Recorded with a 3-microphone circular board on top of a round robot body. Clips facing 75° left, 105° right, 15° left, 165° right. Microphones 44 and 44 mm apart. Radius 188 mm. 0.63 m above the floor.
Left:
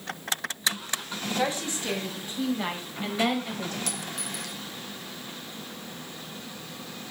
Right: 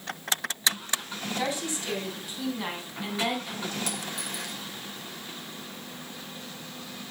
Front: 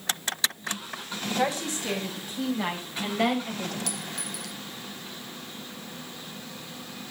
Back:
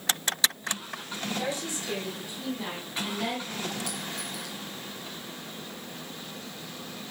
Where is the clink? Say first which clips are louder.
Right 1 dB, even; 35° left, 3 m.